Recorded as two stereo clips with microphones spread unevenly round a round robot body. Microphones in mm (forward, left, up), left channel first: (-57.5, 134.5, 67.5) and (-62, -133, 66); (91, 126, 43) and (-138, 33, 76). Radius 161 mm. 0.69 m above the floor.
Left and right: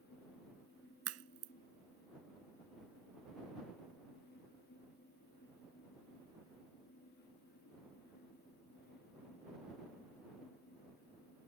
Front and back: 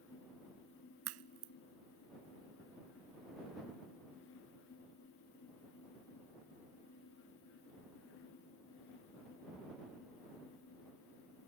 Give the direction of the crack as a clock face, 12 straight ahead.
4 o'clock.